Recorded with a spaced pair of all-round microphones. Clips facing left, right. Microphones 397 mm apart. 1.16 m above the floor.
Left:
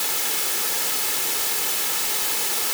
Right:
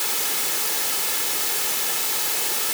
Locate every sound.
Only background noise.